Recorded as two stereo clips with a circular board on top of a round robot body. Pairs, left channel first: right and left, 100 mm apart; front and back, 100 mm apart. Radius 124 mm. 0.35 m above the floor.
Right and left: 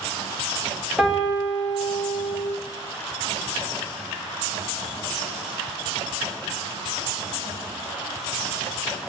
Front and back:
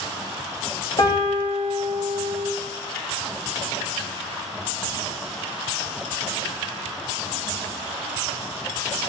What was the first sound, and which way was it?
A piano, 5° left.